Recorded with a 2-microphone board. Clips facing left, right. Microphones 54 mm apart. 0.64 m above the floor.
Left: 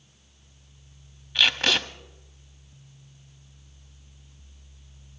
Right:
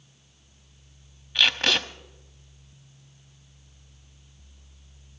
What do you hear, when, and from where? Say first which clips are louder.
1.4 s tape being pulled: even; centre (ahead or behind), 0.9 m